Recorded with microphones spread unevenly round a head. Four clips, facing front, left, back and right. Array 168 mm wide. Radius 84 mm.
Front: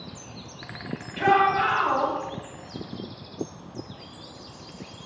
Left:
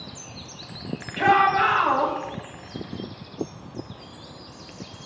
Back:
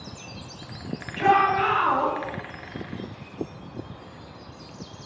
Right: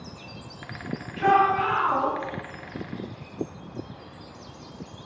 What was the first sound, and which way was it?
A shout, 80° left.